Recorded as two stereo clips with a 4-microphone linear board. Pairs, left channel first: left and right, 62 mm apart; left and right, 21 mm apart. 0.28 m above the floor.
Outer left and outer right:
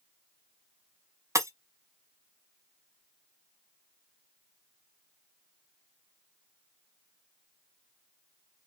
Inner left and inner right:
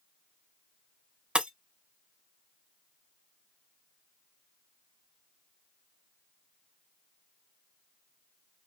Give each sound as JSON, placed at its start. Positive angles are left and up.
{"t": 1.4, "sound": "breaking glass", "side_deg": -55, "distance_m": 0.6}